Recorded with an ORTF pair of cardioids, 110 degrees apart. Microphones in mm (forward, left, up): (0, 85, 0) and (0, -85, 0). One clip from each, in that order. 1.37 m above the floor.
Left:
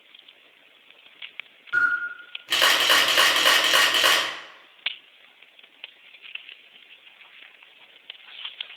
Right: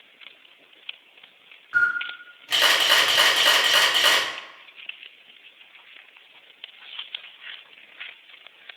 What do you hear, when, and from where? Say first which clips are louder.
1.7 s a camera shutter: even; 20° left, 1.4 m